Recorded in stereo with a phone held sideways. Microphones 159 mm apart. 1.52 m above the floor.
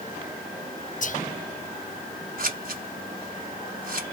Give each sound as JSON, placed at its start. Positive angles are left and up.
{"t": 1.0, "sound": "whispering", "side_deg": 55, "distance_m": 0.5}
{"t": 2.4, "sound": "scissors", "side_deg": -65, "distance_m": 1.0}